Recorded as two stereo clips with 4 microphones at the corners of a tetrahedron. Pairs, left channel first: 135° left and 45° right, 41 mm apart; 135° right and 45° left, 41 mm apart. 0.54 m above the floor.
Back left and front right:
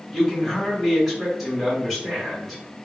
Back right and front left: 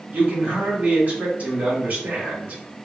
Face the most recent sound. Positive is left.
turn(degrees=45)